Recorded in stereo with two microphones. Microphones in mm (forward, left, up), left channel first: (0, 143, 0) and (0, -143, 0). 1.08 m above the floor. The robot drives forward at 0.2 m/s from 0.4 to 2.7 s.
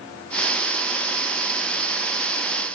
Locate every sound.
Only background noise.